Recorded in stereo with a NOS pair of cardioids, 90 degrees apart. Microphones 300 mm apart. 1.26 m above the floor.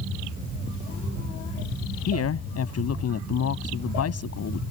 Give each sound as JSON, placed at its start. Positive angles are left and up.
{"t": 2.1, "sound": "a woman speaking", "azimuth_deg": 55}